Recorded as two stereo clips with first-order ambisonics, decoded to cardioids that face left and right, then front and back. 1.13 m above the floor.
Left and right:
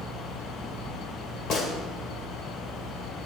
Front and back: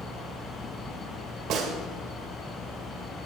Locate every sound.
1.5 s a gunshot: 135° left, 1.7 m